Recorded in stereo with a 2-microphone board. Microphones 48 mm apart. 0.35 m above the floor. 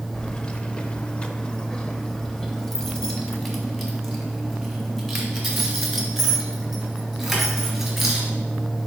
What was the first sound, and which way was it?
Keys jangling, 15° left (ahead or behind).